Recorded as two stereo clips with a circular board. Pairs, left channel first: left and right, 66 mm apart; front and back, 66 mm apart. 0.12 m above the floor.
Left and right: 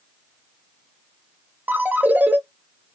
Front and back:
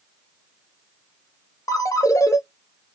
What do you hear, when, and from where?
1.7 s a ringtone: 30° right, 0.9 m